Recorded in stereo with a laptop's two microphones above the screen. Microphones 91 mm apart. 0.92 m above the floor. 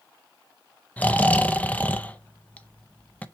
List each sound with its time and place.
1.0 s snoring: 15° left (ahead or behind), 0.5 m